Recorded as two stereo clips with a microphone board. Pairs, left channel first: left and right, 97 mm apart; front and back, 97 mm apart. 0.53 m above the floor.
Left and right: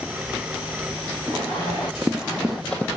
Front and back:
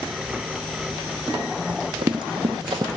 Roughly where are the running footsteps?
Behind right.